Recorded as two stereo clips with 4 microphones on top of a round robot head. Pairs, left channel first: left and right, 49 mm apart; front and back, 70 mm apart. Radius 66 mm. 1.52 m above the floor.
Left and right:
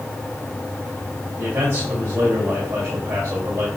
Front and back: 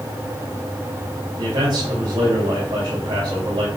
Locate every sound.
1.4 s a man speaking: 145° right, 3.5 m